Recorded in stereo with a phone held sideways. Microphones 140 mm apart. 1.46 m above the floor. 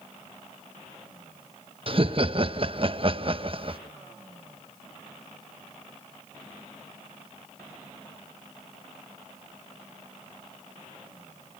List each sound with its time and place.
1.9 s laughter: 45° right (ahead or behind), 1.1 m